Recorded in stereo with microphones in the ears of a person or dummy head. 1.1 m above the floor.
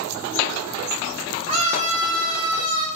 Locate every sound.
1.5 s a scream: 30° right (ahead or behind), 7 m; by 2.9 s 20° right (ahead or behind), 7 m